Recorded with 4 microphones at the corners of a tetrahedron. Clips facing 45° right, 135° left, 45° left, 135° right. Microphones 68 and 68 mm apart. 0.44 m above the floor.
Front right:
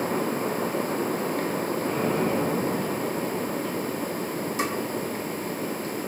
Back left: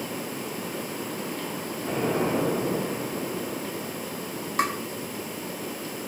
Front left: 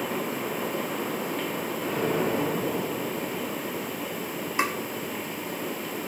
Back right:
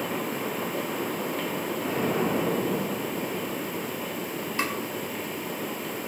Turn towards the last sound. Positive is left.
turn(degrees=115)